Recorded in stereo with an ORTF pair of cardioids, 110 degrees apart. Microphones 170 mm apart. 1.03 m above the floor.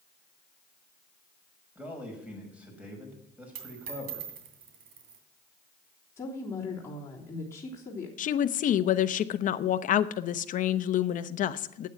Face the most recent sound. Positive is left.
turn(degrees=50)